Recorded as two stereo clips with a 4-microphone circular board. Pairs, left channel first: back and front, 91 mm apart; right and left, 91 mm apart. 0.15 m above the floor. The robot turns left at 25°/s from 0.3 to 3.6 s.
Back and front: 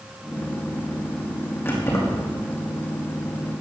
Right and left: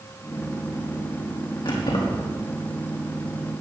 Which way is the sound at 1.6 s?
115° right.